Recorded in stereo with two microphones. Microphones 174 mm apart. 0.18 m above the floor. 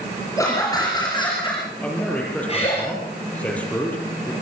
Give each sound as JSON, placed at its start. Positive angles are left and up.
{"t": 0.4, "sound": "laughter", "side_deg": 20, "distance_m": 4.0}
{"t": 1.8, "sound": "a man speaking", "side_deg": 10, "distance_m": 5.5}